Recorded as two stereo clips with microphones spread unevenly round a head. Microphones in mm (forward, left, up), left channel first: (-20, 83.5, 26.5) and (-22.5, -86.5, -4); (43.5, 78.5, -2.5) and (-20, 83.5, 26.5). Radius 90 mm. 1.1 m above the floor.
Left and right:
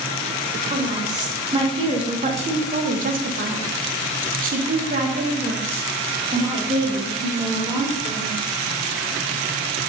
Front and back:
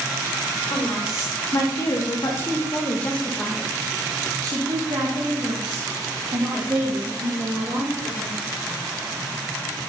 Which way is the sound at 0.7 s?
20° right.